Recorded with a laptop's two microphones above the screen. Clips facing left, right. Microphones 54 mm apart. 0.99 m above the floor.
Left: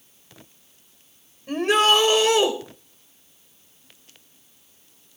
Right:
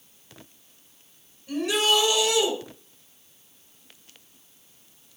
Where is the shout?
45° left (ahead or behind), 5 m.